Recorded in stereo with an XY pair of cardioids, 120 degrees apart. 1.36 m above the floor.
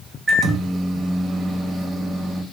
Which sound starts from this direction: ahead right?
A microwave, at 0.3 s.